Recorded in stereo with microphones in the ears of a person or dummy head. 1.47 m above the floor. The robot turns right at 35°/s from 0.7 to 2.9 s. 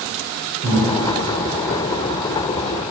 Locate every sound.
0.6 s breathing: 50° right (ahead or behind), 3 m; by 0.9 s 55° right (ahead or behind), 3 m